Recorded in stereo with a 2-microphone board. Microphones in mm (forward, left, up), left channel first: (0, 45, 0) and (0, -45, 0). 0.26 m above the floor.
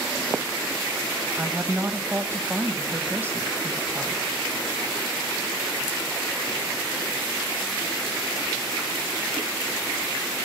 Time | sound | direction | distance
1.4 | a woman speaking | 25° right (ahead or behind) | 1.0 m